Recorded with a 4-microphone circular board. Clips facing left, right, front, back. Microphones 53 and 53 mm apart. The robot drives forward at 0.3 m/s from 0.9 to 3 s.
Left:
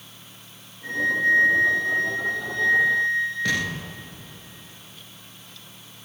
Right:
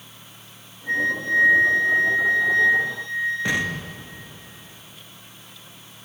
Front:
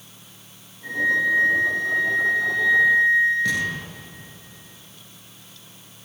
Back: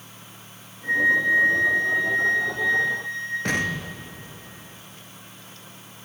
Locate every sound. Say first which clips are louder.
0.8 s a flute: left 2 dB, back 1 dB; 85° left, 9 m
3.5 s an explosion: right 1 dB, front 1 dB; 155° right, 2 m